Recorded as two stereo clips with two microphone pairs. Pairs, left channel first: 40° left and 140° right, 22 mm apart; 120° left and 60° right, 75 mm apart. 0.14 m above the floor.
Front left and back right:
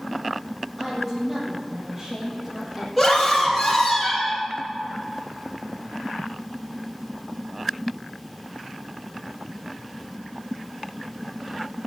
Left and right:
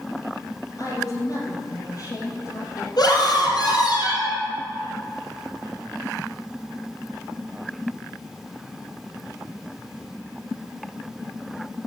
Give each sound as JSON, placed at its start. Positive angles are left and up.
{"t": 0.8, "sound": "a woman speaking", "azimuth_deg": 155, "distance_m": 3.5}
{"t": 3.0, "sound": "a scream", "azimuth_deg": 130, "distance_m": 4.5}